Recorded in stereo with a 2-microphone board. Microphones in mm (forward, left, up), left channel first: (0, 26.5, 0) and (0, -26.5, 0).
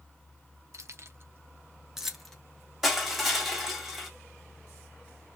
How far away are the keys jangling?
About 0.6 m.